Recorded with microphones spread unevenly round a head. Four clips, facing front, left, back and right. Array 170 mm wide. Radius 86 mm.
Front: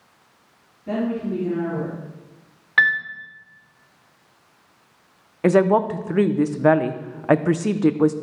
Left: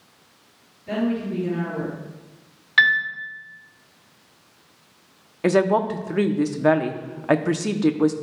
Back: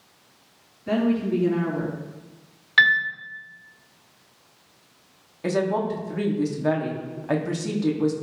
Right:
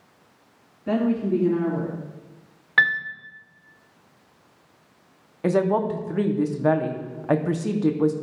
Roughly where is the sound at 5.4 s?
Ahead left.